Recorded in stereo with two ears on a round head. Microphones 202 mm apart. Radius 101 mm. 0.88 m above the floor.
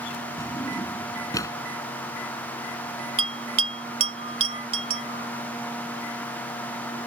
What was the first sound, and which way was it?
A drawer, 15° left (ahead or behind).